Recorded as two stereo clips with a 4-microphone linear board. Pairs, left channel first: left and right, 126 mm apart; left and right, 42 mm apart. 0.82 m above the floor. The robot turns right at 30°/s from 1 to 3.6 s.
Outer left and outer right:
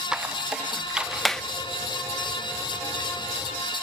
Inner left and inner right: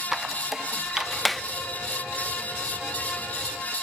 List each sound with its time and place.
0.1 s a squeak: 5° right (ahead or behind), 0.7 m; by 1.4 s 5° left (ahead or behind), 0.7 m